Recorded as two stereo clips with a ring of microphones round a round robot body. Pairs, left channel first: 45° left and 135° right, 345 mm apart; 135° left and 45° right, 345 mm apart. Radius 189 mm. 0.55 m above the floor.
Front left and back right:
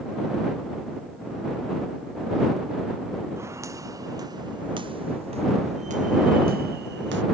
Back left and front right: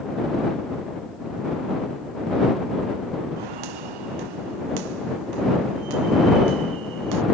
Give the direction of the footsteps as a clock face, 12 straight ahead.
2 o'clock.